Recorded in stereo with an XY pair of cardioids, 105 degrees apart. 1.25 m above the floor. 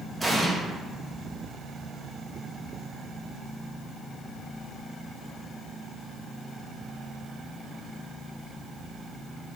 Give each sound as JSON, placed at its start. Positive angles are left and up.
{"t": 0.2, "sound": "an explosion", "azimuth_deg": -20, "distance_m": 0.6}